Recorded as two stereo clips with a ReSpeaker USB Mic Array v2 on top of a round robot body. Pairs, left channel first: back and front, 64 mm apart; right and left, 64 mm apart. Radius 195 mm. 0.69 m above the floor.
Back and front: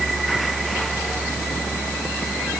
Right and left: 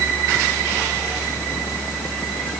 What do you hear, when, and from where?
Only background noise.